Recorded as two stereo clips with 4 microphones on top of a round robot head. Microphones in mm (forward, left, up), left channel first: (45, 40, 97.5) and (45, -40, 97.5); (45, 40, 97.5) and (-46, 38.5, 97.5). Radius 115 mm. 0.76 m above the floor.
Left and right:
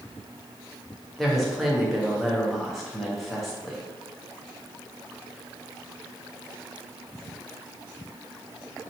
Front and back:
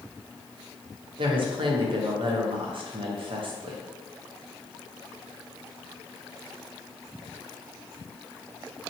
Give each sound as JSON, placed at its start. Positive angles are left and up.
{"t": 1.2, "sound": "a woman speaking", "azimuth_deg": 180, "distance_m": 1.0}